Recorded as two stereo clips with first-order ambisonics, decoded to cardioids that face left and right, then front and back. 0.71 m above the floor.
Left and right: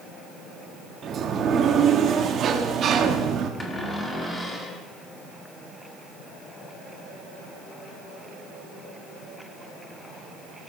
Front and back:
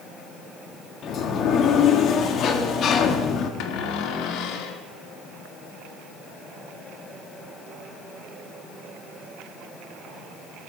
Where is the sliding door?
40° right, 1.5 m.